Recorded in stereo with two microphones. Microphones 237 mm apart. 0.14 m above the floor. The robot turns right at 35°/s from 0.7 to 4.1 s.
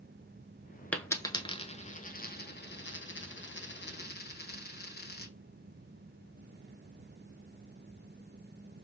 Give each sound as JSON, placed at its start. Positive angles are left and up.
{"t": 0.9, "sound": "a dropped coin", "side_deg": 5, "distance_m": 0.7}